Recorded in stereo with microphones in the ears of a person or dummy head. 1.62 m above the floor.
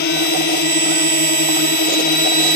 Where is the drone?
55° left (ahead or behind).